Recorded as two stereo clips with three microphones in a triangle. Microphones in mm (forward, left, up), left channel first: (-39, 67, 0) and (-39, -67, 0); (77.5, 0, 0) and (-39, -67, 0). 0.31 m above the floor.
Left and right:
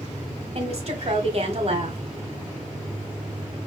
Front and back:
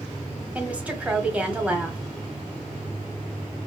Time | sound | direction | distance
0.6 | a woman speaking | 70° right | 1.5 m